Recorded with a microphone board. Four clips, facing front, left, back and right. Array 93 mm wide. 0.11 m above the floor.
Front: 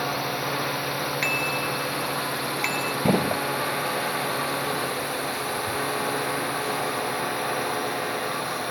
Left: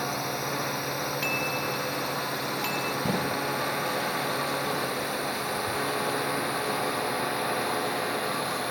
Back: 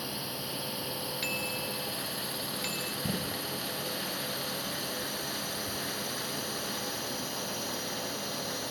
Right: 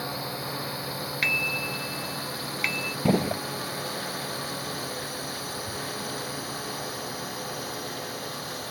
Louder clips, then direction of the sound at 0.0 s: Left 3 dB, front 12 dB; 15° left.